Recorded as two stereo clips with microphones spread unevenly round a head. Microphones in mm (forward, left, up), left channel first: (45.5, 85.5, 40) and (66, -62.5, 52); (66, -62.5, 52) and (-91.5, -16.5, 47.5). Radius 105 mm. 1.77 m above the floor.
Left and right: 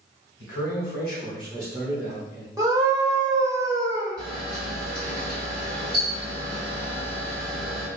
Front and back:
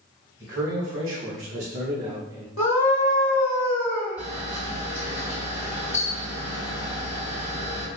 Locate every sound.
0.4 s a man speaking: 120° left, 1.0 m; by 2.5 s 130° right, 0.8 m
2.6 s a scream: 15° right, 1.0 m
4.2 s a camera shutter: 145° left, 1.7 m